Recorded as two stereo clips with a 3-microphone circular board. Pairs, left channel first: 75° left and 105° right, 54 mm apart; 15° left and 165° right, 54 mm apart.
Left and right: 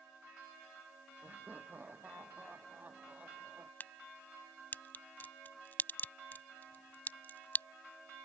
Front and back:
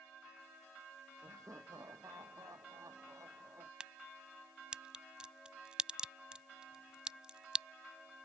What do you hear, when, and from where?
1.2 s laughter: 160° right; by 3.7 s 170° right
3.8 s a crack: 125° left